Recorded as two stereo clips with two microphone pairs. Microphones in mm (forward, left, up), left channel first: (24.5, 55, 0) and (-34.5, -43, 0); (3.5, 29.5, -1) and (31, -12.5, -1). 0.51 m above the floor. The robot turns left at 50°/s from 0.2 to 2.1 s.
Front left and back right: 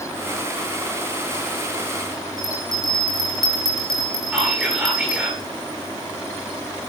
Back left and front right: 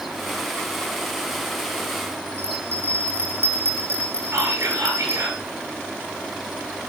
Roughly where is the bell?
Ahead right.